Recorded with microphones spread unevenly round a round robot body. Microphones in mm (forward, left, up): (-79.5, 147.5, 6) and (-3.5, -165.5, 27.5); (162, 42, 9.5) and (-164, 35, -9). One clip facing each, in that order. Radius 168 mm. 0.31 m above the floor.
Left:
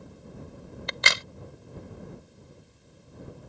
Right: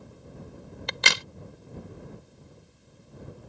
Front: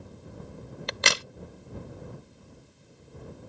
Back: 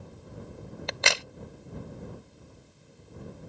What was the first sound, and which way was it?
A crack, 60° right.